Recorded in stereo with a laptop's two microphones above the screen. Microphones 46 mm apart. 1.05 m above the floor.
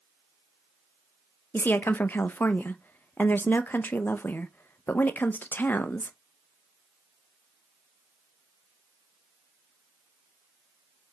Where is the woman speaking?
45° left (ahead or behind), 0.6 m.